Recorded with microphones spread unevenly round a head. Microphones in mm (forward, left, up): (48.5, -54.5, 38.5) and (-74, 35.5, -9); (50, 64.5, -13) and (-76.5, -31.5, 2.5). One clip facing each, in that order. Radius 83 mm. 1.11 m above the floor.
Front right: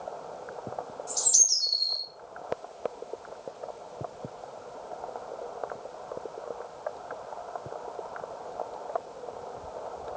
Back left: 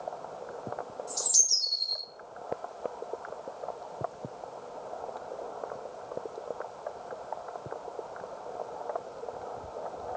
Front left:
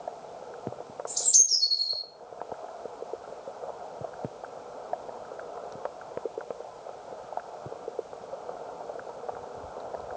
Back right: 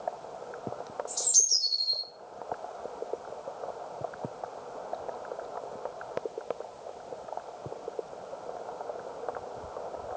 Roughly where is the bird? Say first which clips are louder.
Front right 1 dB, back right 1 dB; ahead.